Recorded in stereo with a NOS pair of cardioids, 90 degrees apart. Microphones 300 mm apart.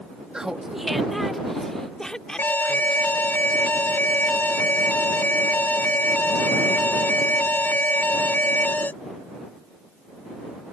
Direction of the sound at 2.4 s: 5° left.